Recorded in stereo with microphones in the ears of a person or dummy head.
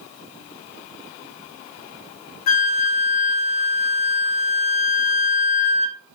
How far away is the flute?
About 0.8 m.